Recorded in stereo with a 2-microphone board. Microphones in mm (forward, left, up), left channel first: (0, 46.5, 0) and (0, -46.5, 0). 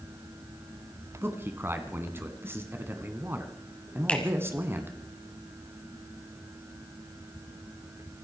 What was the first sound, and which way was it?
A man speaking, 25° right (ahead or behind).